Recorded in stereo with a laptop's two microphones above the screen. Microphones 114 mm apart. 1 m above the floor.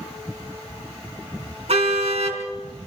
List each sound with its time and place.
1.7 s a car horn: 60° right (ahead or behind), 4 m